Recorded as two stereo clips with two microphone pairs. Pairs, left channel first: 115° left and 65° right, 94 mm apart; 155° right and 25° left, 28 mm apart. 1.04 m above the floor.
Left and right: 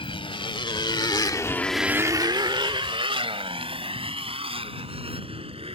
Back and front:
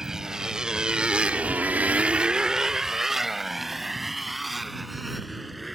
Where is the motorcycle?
95° left; by 5.8 s 65° right.